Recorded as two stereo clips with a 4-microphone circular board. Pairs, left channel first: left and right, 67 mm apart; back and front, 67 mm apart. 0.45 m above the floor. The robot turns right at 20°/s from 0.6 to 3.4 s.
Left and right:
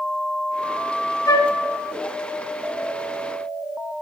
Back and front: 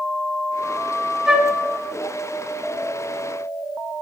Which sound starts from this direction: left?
A flute, at 1.3 s.